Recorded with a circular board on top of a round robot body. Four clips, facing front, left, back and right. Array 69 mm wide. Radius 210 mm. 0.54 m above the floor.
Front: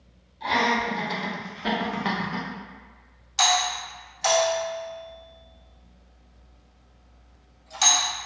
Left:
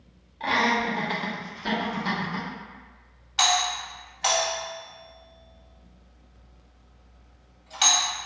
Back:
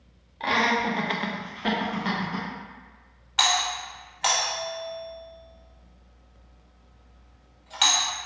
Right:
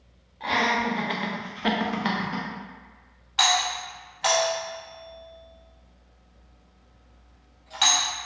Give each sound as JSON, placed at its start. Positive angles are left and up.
{"t": 0.4, "sound": "laughter", "azimuth_deg": 165, "distance_m": 1.1}
{"t": 3.4, "sound": "a doorbell", "azimuth_deg": -170, "distance_m": 1.7}